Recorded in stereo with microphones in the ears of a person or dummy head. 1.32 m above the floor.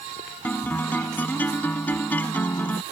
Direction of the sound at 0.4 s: 5° left (ahead or behind).